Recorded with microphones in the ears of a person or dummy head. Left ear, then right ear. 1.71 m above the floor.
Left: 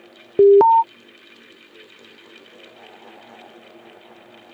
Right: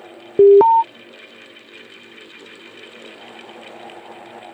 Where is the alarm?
10° left (ahead or behind).